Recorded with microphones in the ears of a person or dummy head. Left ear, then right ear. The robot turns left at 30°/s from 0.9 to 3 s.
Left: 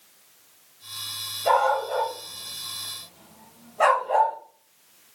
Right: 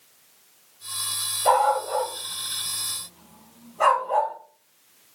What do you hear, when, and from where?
1.4 s a dog barking: 20° right (ahead or behind), 2.5 m; by 4.3 s 20° left (ahead or behind), 2.5 m